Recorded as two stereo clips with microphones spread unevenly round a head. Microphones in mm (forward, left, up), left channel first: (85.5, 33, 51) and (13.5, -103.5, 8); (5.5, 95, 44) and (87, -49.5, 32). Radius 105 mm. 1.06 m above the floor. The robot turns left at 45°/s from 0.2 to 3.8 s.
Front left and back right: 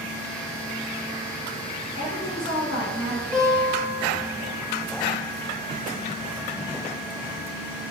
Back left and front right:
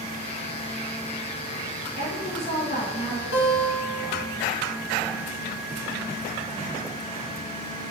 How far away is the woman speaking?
About 1.5 m.